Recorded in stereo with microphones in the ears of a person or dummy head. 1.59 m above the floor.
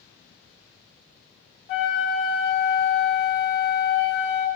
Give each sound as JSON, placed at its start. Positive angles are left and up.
{"t": 1.7, "sound": "a flute", "side_deg": 35, "distance_m": 1.0}